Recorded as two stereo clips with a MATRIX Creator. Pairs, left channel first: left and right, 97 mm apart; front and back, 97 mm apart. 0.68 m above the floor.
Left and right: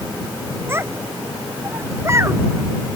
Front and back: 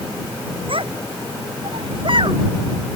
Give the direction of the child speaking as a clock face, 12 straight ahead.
5 o'clock.